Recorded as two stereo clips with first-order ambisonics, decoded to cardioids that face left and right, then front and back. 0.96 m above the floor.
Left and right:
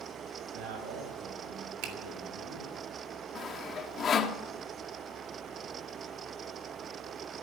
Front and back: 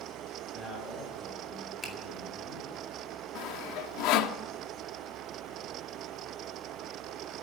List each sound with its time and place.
0.5 s a man speaking: 105° right, 7.5 m
1.8 s a finger snap: 80° right, 2.5 m
3.4 s sawing: 25° left, 1.0 m